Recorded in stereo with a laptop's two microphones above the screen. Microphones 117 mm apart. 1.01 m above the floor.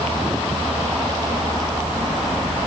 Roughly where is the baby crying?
No baby crying in this recording.